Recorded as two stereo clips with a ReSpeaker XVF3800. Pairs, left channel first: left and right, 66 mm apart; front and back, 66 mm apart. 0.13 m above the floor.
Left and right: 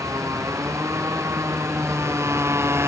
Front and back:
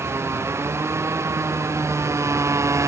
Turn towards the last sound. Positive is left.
turn(degrees=-140)